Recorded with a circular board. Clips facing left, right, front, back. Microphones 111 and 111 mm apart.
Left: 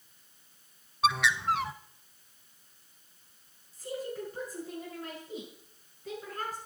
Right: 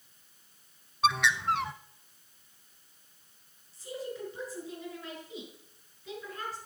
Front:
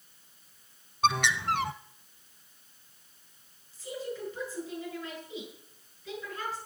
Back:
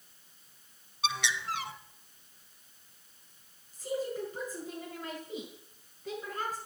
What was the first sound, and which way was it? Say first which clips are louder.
A bird: even, front 7 dB; straight ahead.